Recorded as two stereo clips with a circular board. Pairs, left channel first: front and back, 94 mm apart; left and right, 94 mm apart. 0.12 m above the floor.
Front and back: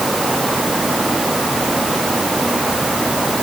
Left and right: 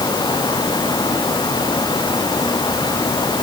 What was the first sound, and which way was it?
Only background noise.